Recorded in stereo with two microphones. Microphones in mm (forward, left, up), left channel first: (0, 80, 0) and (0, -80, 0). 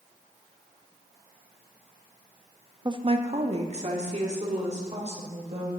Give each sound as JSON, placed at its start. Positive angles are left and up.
{"t": 2.9, "sound": "a woman speaking", "side_deg": -25, "distance_m": 0.5}